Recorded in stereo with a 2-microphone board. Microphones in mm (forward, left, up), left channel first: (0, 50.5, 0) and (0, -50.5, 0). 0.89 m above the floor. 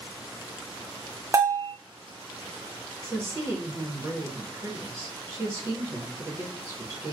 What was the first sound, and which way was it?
A bell, 30° right (ahead or behind).